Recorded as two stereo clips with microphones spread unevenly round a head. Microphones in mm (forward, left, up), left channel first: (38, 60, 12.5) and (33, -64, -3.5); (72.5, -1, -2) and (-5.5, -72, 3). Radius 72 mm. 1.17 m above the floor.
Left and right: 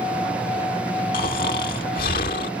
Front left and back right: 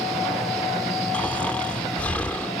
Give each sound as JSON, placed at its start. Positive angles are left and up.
{"t": 1.1, "sound": "snoring", "azimuth_deg": 125}